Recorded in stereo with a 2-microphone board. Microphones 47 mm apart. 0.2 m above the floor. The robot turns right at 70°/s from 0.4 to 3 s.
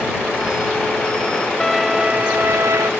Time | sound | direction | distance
1.6 | a violin | 170° left | ?